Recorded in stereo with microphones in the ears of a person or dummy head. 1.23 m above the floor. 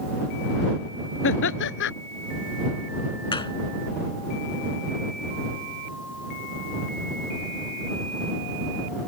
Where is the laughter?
60° left (ahead or behind).